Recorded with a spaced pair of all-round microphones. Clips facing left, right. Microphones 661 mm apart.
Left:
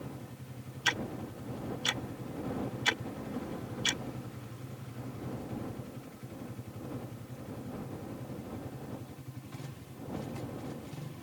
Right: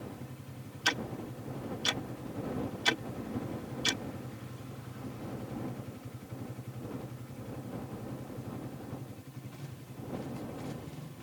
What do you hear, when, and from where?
0.8 s ticking: 65° right (ahead or behind)